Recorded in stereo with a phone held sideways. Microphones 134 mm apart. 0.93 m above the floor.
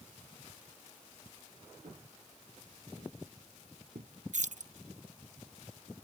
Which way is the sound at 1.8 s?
65° right (ahead or behind).